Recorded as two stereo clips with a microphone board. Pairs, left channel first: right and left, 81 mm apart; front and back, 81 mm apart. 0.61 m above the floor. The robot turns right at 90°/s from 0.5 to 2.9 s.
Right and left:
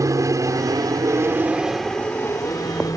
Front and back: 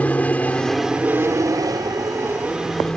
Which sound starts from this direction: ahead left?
An aircraft, at 0.0 s.